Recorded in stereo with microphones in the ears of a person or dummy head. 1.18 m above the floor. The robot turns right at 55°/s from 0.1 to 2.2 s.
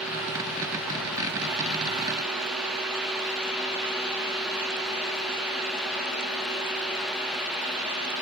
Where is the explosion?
I don't hear an explosion.